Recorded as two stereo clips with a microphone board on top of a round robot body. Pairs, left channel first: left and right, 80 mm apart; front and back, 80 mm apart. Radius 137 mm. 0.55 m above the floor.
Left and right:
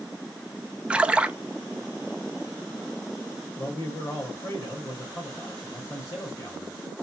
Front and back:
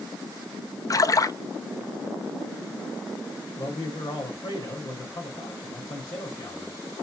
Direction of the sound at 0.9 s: 20° right.